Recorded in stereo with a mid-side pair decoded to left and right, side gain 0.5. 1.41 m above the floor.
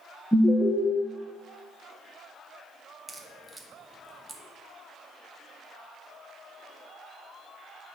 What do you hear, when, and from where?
0.3 s an alarm: 10° left, 1.2 m
3.1 s a crack: 10° right, 0.9 m